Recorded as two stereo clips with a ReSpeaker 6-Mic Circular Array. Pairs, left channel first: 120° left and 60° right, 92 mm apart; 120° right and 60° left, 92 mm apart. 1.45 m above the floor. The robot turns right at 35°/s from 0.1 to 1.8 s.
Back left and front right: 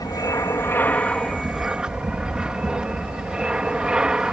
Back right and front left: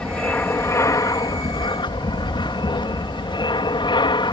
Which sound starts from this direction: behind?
An aircraft, at 0.0 s.